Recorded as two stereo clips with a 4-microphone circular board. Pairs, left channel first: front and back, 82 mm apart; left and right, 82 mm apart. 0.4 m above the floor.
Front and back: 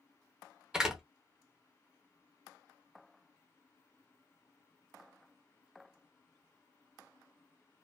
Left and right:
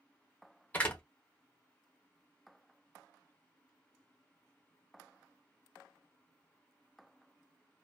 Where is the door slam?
115° left, 0.8 m.